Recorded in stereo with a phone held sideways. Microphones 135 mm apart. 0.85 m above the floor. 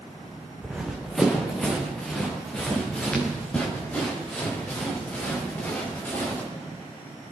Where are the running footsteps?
5° right (ahead or behind), 2.5 m; by 6.4 s 15° left (ahead or behind), 8 m.